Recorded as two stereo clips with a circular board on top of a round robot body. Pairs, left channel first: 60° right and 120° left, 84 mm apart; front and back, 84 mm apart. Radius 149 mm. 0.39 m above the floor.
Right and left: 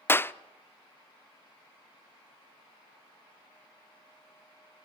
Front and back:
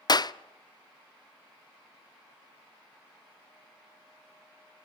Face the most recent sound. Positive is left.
turn(degrees=-5)